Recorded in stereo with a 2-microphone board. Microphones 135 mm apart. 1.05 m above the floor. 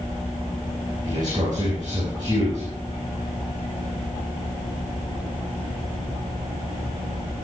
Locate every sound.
1.0 s a man speaking: 30° right (ahead or behind), 8 m